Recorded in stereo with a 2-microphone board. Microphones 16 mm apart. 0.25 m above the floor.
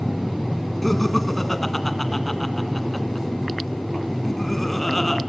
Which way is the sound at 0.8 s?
15° left (ahead or behind).